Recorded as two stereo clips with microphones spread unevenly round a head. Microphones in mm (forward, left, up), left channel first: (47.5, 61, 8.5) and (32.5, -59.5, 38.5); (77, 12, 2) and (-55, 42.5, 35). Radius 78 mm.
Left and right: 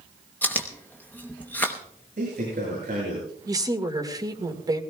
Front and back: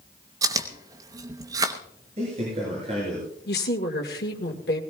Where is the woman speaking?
40° right, 2.0 m.